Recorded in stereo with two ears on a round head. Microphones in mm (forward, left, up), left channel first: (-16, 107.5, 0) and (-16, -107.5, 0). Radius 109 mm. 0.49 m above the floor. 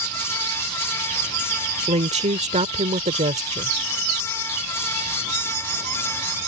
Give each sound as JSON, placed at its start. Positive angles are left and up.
{"t": 1.9, "sound": "a woman speaking", "side_deg": -30}